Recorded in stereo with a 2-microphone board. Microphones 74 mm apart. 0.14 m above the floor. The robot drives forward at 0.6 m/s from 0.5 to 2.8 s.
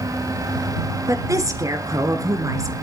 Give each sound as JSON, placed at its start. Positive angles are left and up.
{"t": 1.1, "sound": "a woman speaking", "side_deg": -45, "distance_m": 2.0}